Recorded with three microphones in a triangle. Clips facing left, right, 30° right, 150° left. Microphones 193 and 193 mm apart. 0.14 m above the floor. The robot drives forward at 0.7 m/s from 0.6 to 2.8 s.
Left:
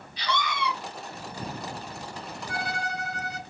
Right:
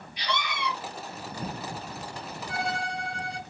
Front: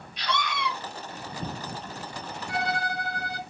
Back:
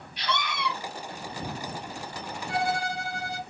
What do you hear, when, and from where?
0.2 s a scream: 140° right, 1.7 m; by 0.7 s 145° right, 1.8 m
2.5 s a violin: 25° right, 0.8 m; by 3.4 s 35° right, 0.6 m